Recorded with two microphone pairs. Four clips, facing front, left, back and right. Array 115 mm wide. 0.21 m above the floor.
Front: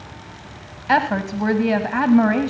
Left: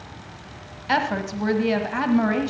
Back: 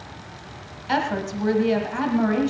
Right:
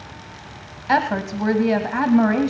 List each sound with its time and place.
0.9 s a woman speaking: 30° right, 1.3 m